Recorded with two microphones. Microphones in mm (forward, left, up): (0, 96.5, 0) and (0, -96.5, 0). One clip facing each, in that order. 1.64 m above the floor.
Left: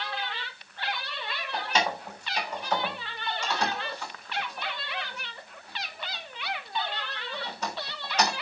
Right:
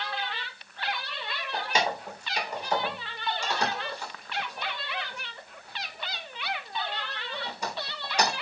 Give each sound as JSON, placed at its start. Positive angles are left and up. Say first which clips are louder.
{"t": 1.5, "sound": "keys jangling", "louder": "even", "side_deg": -10, "distance_m": 3.5}